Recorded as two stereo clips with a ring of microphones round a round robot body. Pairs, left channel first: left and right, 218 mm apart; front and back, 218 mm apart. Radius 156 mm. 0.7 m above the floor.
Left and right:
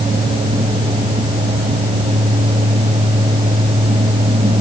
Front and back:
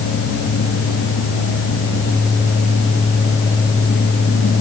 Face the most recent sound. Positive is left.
No sound to turn to.